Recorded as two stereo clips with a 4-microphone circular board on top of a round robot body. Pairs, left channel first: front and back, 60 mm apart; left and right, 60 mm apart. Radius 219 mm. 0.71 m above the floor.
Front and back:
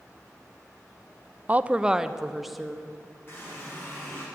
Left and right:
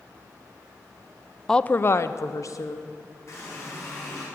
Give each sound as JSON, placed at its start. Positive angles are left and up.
{"t": 1.5, "sound": "a woman speaking", "azimuth_deg": 160, "distance_m": 0.7}
{"t": 3.3, "sound": "a running tap", "azimuth_deg": 50, "distance_m": 5.5}